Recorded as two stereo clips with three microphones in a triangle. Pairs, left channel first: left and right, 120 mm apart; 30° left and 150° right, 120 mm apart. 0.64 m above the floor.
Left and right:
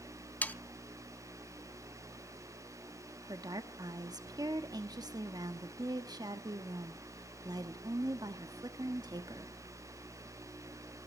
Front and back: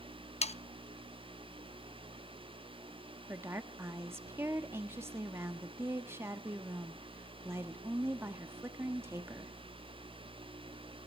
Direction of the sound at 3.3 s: 100° right.